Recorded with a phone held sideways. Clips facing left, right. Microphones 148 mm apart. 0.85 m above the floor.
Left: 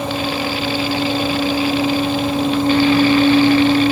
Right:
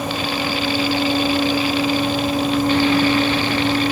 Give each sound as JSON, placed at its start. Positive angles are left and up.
{"t": 0.0, "sound": "a fan", "side_deg": 30, "distance_m": 6.0}